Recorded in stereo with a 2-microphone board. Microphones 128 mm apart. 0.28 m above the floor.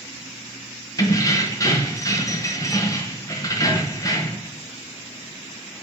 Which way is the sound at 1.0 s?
30° left (ahead or behind).